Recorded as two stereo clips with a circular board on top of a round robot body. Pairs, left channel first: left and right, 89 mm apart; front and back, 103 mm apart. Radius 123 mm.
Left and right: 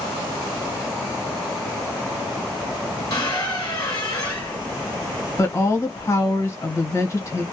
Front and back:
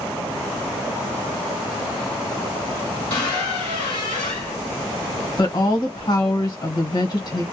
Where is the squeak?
45° left, 1.5 m.